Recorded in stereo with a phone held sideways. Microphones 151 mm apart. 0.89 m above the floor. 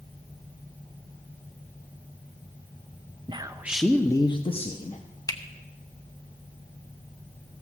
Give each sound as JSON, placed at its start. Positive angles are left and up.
{"t": 3.3, "sound": "a man speaking", "side_deg": -30, "distance_m": 0.6}
{"t": 5.3, "sound": "a finger snap", "side_deg": 25, "distance_m": 0.8}